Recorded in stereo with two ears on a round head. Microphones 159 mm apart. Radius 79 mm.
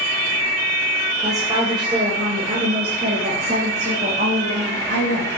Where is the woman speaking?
20° right (ahead or behind), 4 m; by 5.4 s 65° right (ahead or behind), 5 m.